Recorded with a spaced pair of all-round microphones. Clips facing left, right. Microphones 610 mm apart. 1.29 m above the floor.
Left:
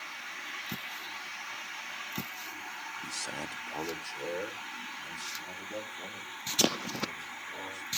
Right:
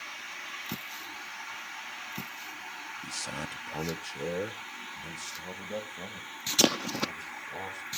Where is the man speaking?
15° right (ahead or behind), 0.5 m; by 7.9 s 75° right (ahead or behind), 4 m.